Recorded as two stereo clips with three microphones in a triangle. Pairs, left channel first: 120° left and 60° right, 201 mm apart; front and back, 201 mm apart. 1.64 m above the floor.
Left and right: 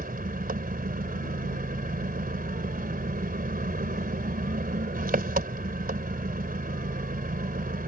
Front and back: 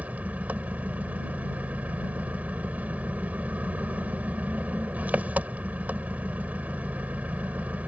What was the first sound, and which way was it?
An engine running, 100° right.